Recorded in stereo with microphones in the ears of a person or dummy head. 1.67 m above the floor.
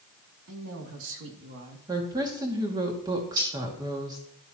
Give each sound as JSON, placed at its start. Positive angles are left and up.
{"t": 0.5, "sound": "a woman speaking", "side_deg": -85, "distance_m": 3.0}
{"t": 1.9, "sound": "a woman speaking", "side_deg": -20, "distance_m": 2.0}
{"t": 3.4, "sound": "cutlery clinking", "side_deg": -25, "distance_m": 5.5}